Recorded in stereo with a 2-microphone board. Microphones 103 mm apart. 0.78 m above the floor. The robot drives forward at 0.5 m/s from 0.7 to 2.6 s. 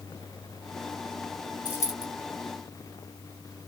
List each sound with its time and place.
1.6 s a dropped coin: 35° left (ahead or behind), 1.6 m; by 2.0 s 30° left (ahead or behind), 1.7 m